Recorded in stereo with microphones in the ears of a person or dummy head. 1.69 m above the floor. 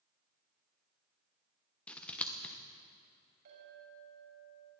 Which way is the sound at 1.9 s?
10° left (ahead or behind).